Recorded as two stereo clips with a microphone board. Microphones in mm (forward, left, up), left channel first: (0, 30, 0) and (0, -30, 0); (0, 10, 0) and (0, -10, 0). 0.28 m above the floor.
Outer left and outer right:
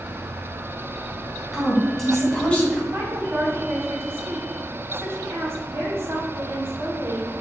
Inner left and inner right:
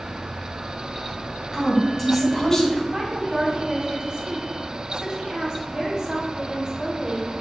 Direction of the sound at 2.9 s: 45° right (ahead or behind).